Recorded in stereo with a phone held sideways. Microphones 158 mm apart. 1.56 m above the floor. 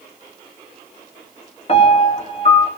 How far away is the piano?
About 1.9 m.